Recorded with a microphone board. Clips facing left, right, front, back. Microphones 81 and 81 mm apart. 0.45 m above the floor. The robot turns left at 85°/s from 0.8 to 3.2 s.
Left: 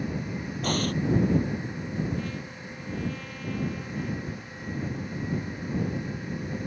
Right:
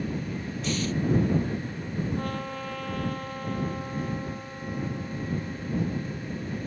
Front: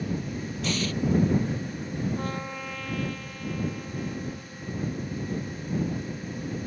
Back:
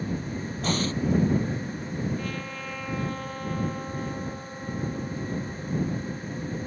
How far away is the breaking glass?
I don't hear breaking glass.